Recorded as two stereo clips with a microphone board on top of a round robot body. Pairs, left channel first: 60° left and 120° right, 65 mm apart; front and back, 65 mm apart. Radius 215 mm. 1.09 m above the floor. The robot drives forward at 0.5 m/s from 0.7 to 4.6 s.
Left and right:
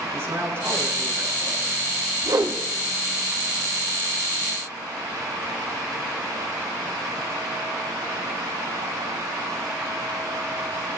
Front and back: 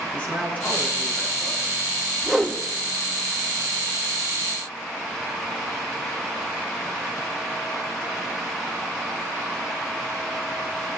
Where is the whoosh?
90° right, 1.3 m; by 2.6 s 95° right, 1.3 m.